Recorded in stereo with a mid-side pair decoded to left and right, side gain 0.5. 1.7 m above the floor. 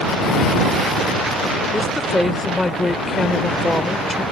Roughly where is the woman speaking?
Ahead.